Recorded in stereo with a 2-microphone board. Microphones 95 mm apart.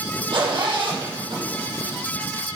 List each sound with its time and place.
0.3 s a zipper: 55° right (ahead or behind), 7 m